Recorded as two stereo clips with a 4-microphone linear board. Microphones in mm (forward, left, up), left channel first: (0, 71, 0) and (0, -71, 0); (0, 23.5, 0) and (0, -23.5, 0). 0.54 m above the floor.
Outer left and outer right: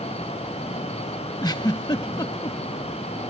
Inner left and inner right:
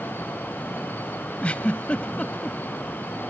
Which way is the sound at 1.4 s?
30° left (ahead or behind).